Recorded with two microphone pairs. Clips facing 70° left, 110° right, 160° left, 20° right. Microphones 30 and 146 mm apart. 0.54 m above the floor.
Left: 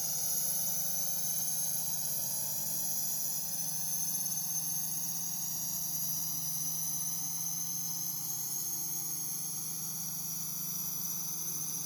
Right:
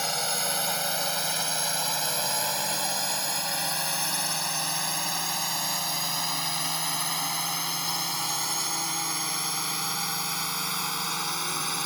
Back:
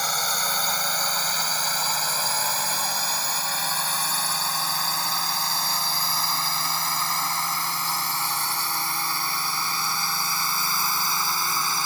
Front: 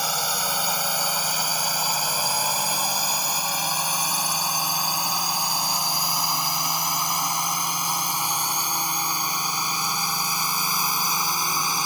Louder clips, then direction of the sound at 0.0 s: Right 12 dB, front 1 dB; 100° right.